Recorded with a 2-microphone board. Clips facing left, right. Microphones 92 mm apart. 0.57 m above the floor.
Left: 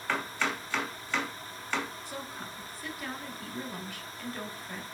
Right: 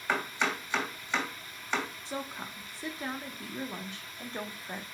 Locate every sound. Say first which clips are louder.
0.1 s chopping: right 1 dB; 15° right (ahead or behind), 2.5 m
2.0 s a woman speaking: right 2 dB; 25° right (ahead or behind), 1.0 m